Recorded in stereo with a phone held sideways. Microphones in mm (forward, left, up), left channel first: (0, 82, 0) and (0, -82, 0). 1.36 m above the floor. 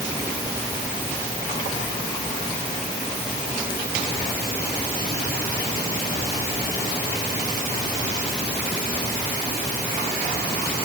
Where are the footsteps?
I don't hear footsteps.